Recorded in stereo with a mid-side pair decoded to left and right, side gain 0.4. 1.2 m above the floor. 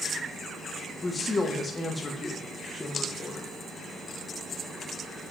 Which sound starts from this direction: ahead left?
A woman speaking, at 1.0 s.